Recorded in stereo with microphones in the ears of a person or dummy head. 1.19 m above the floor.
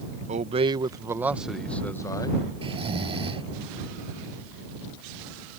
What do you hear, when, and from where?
0.3 s a man speaking: 40° right (ahead or behind); by 2.4 s 20° left (ahead or behind)
2.6 s snoring: 30° right (ahead or behind)